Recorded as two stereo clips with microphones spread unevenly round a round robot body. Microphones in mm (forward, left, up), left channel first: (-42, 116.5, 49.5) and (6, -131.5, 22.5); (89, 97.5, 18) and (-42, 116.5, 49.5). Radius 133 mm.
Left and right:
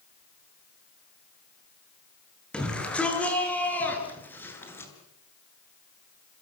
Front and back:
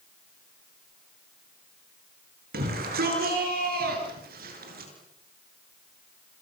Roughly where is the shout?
Behind.